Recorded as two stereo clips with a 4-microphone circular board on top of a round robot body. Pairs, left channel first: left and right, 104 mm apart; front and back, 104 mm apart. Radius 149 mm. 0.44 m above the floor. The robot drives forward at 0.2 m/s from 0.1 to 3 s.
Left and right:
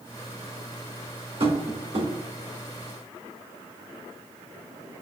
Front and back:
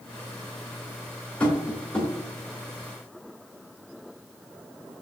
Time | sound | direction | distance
1.4 | tapping | 75° right | 3 m